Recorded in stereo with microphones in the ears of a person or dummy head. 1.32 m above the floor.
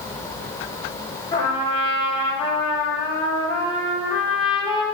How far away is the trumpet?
About 1.8 m.